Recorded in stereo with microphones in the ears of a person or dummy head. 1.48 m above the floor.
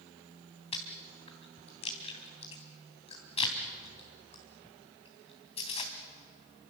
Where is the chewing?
25° left (ahead or behind), 2.5 m.